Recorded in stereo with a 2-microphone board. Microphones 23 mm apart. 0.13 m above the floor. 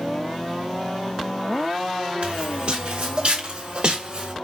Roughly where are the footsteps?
Right.